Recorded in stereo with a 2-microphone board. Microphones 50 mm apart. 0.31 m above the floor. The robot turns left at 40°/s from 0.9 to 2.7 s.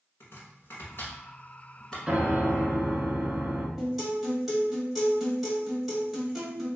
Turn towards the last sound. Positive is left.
turn(degrees=-5)  # may be behind; listen again after turning